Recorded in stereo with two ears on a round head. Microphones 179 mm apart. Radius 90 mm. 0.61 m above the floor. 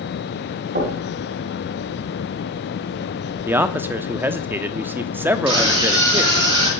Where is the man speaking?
10° right (ahead or behind), 1.0 m.